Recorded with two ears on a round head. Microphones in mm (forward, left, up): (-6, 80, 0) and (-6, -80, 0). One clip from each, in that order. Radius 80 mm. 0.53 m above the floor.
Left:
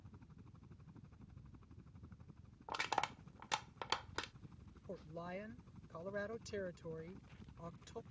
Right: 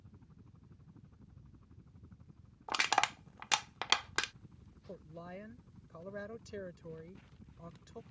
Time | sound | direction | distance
0.0 | a helicopter | 75° left (ahead or behind) | ?
2.7 | crushing | 55° right (ahead or behind) | ?
4.9 | a woman speaking | 20° left (ahead or behind) | ?